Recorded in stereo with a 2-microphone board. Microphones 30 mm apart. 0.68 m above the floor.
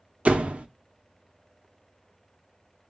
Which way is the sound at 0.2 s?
45° right (ahead or behind).